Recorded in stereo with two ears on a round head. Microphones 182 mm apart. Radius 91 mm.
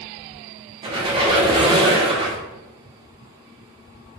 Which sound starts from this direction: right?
A squeak, at 0.8 s.